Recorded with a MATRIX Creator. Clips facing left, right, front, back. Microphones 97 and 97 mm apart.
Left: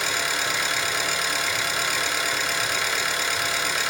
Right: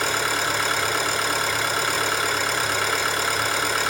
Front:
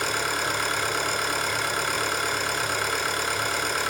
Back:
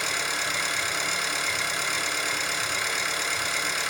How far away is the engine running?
About 2 m.